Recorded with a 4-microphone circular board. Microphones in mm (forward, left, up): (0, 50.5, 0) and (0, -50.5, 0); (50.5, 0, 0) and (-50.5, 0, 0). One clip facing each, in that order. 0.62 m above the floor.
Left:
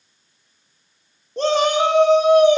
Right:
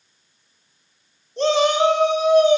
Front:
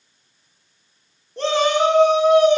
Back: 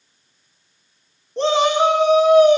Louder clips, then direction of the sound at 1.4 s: Even, back 2 dB; 120° left.